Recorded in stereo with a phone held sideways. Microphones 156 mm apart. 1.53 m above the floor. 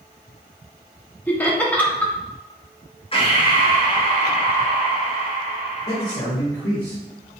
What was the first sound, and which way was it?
Laughter, 10° left (ahead or behind).